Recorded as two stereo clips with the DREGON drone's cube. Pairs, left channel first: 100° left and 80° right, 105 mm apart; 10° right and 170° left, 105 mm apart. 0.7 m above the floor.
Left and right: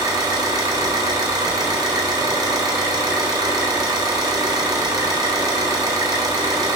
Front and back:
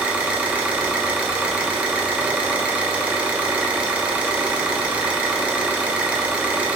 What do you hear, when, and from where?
0.0 s an engine running: 115° right, 0.8 m